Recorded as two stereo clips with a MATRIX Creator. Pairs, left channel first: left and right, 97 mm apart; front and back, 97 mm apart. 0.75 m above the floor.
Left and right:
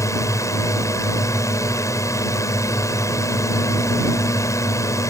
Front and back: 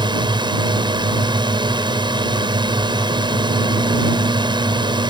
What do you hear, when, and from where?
0.0 s a drone: 145° left